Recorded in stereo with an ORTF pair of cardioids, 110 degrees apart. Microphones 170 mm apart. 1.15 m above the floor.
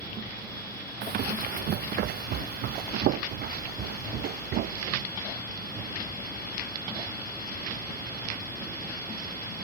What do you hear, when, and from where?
1.0 s running footsteps: 65° right; by 5.0 s 75° right